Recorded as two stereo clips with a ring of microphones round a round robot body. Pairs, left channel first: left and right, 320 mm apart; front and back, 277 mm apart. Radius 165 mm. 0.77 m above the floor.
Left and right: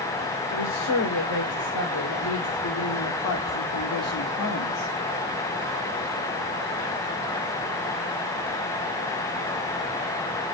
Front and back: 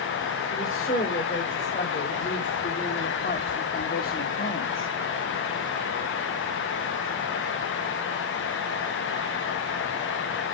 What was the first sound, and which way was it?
A woman speaking, 60° left.